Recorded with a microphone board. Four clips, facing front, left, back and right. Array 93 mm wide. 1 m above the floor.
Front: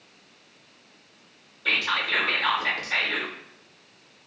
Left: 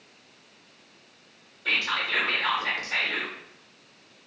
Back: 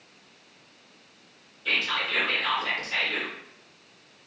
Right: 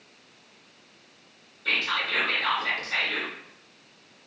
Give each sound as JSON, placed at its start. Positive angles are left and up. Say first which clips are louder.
{"t": 1.6, "sound": "whispering", "louder": "even, front 3 dB", "azimuth_deg": 10, "distance_m": 0.7}